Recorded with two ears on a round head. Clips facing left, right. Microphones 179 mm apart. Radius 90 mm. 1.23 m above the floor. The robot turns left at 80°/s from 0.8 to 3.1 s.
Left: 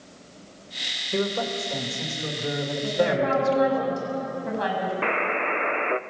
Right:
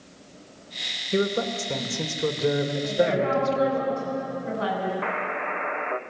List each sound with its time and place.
1.1 s a man speaking: 25° right, 2 m; by 3.8 s 175° left, 2 m
2.8 s a woman speaking: 50° left (ahead or behind), 8 m; by 4.9 s 75° left (ahead or behind), 8 m
5.0 s a buzzer: 40° left (ahead or behind), 0.6 m